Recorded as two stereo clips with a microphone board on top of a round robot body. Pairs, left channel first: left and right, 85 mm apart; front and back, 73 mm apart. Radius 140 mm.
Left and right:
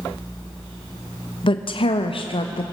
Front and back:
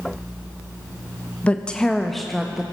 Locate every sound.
1.4 s a woman speaking: 75° left, 1.2 m; by 2.6 s 95° left, 1.6 m